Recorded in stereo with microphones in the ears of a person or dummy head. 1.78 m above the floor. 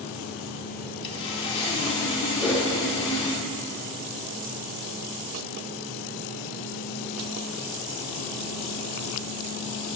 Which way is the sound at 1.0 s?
30° left (ahead or behind).